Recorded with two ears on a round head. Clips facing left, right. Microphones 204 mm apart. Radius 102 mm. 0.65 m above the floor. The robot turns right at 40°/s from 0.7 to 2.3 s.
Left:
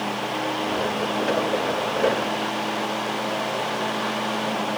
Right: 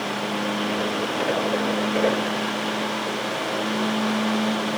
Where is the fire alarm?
I don't hear a fire alarm.